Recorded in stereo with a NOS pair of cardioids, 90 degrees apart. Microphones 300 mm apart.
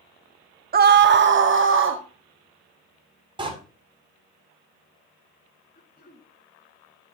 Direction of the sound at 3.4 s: 15° right.